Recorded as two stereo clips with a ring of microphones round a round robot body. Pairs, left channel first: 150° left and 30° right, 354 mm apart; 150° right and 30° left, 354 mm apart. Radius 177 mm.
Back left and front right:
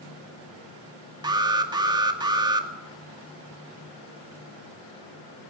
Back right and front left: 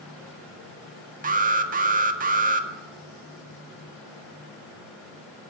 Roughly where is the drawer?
No drawer in this recording.